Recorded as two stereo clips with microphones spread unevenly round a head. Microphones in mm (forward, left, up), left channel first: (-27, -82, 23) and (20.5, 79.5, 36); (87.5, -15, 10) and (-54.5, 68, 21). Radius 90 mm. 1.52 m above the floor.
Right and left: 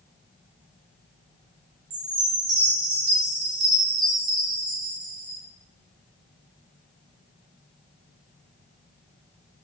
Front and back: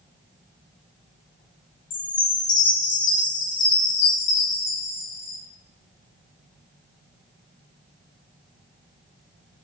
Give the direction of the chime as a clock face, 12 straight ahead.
12 o'clock.